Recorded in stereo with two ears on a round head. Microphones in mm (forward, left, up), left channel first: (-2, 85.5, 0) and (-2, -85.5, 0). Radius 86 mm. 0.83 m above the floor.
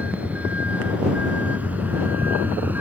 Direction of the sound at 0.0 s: 10° right (ahead or behind).